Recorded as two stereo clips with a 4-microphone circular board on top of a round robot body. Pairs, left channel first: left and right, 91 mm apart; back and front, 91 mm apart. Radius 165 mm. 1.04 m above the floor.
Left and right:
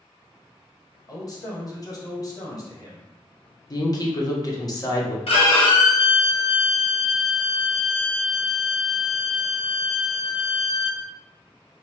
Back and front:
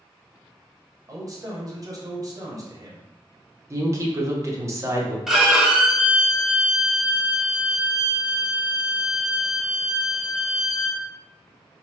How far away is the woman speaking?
About 1.2 m.